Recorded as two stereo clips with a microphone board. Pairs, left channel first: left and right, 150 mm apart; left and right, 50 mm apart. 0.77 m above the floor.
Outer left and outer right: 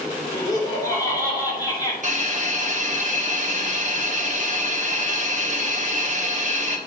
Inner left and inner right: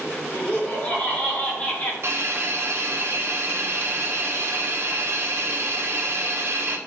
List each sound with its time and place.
0.3 s laughter: 25° left (ahead or behind), 3 m
2.0 s a hiss: 55° right (ahead or behind), 1.0 m